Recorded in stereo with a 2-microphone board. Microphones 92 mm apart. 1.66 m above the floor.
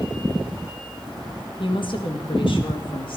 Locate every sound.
1.6 s a woman speaking: 60° left (ahead or behind), 1.6 m; by 3.2 s 65° left (ahead or behind), 2.5 m